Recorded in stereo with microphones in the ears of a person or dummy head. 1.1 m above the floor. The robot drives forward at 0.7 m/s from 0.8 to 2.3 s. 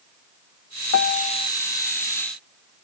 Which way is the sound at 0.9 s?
65° left (ahead or behind).